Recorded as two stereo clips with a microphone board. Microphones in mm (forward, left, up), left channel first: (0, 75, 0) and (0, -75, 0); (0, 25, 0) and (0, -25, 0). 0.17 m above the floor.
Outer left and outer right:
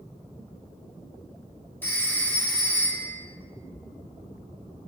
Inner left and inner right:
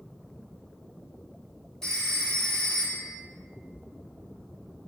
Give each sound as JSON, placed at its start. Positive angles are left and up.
{"t": 1.8, "sound": "a phone ringing", "side_deg": 10, "distance_m": 1.2}